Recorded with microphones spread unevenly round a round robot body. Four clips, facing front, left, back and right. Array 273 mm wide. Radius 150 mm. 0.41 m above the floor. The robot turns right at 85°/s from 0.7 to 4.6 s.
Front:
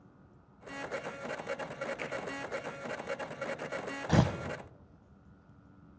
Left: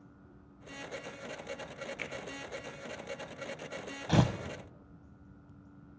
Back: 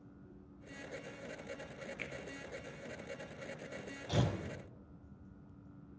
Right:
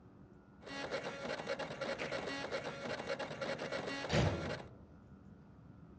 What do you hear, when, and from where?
2.0 s a finger snap: 85° left, 1.1 m; by 2.1 s 95° left, 1.1 m
4.1 s tearing paper: 30° left, 0.8 m; by 4.3 s 50° left, 0.8 m